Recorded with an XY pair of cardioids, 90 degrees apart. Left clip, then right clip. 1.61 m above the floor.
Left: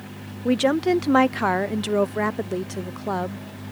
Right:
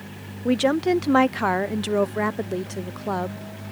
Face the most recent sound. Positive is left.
turn(degrees=10)